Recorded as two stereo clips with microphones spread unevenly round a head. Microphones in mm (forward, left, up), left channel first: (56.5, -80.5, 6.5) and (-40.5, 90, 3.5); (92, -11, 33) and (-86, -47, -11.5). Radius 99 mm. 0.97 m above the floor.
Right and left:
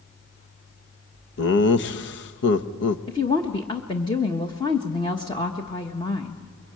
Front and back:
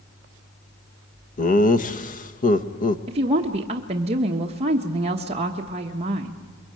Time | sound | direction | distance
1.4 | laughter | 40° right | 1.2 m
3.1 | a woman speaking | 130° right | 1.3 m